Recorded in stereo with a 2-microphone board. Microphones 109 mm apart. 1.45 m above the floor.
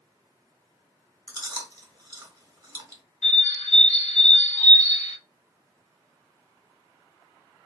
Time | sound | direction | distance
1.3 | chewing | 35° right (ahead or behind) | 1.0 m
3.2 | a bird | 75° left (ahead or behind) | 0.6 m